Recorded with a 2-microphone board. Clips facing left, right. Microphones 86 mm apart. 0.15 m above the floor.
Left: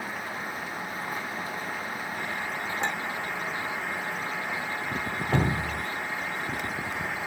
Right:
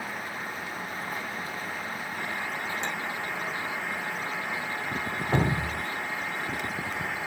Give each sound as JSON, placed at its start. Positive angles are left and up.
{"t": 2.8, "sound": "a clink", "side_deg": 65, "distance_m": 6.5}
{"t": 5.3, "sound": "dripping", "side_deg": -15, "distance_m": 0.6}